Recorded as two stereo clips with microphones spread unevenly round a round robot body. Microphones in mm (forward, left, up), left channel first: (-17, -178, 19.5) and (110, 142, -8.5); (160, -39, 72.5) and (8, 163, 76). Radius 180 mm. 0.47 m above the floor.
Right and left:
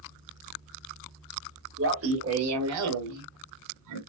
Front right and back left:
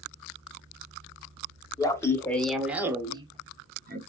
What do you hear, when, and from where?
1.8 s laughter: 20° left, 1.7 m; by 4.0 s 80° left, 1.4 m